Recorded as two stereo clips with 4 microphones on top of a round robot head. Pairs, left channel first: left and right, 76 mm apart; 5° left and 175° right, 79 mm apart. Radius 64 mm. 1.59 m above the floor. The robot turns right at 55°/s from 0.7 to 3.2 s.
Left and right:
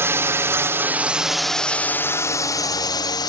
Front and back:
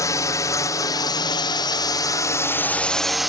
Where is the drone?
40° right; by 3.3 s 100° left.